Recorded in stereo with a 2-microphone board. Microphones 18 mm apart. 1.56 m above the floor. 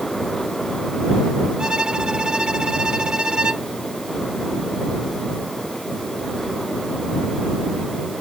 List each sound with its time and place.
1.6 s a violin: 60° right (ahead or behind)